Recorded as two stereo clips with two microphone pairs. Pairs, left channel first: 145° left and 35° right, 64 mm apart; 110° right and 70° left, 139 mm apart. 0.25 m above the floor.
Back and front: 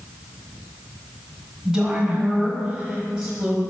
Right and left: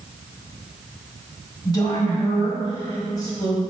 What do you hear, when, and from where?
1.6 s a woman speaking: 100° right, 1.3 m